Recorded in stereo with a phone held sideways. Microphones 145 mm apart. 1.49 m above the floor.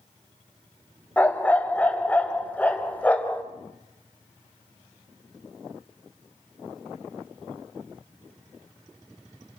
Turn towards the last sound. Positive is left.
turn(degrees=10)  # may be behind; listen again after turning